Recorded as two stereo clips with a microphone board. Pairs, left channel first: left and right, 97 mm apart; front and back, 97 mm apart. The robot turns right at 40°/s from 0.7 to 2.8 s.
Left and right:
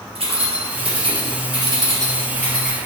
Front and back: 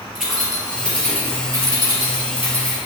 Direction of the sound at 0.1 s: 85° right.